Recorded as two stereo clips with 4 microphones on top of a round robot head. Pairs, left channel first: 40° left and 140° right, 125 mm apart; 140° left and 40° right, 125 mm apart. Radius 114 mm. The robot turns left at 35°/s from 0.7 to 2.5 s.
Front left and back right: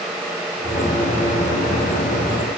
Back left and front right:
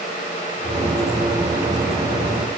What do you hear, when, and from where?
Only background noise.